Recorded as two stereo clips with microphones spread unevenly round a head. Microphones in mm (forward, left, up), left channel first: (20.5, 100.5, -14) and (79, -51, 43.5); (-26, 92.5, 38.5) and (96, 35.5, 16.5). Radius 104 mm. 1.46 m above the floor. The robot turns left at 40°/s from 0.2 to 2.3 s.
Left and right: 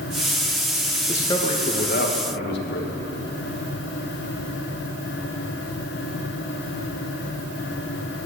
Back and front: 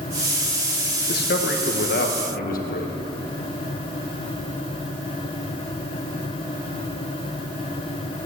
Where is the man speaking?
170° right, 1.6 m; by 2.9 s 140° left, 1.6 m.